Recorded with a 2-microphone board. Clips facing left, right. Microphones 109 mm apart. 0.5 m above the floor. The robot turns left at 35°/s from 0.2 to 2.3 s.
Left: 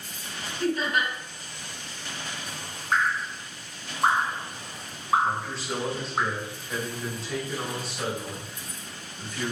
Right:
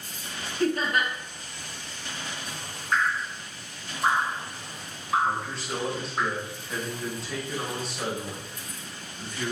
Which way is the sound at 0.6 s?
45° right (ahead or behind).